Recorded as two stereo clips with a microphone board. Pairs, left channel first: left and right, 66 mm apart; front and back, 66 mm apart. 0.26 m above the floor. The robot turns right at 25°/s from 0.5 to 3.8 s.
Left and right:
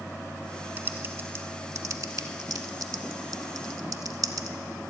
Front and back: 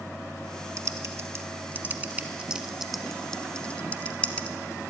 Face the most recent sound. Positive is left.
turn(degrees=-70)